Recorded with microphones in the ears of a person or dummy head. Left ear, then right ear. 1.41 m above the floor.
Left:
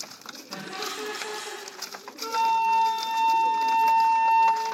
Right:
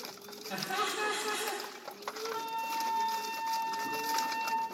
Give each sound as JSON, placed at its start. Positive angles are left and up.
{"t": 0.5, "sound": "laughter", "side_deg": -35, "distance_m": 2.0}
{"t": 2.2, "sound": "a flute", "side_deg": 50, "distance_m": 1.4}